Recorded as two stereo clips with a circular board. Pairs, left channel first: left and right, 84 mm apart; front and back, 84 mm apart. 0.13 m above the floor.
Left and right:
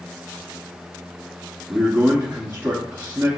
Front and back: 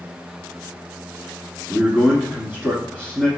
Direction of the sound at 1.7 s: 125° right.